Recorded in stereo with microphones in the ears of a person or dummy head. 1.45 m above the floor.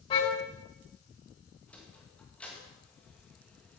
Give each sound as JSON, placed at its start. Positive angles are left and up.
{"t": 0.1, "sound": "a car horn", "side_deg": 30, "distance_m": 6.0}
{"t": 1.7, "sound": "a sliding door", "side_deg": 5, "distance_m": 2.0}